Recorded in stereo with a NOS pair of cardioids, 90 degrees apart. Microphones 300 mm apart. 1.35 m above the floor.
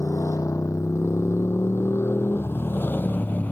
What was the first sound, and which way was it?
A motorcycle, 10° left.